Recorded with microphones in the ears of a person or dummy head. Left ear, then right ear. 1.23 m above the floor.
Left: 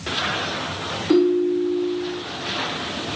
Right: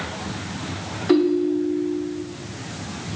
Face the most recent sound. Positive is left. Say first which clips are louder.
# left 1 dB
turn(degrees=-35)  # may be behind; listen again after turning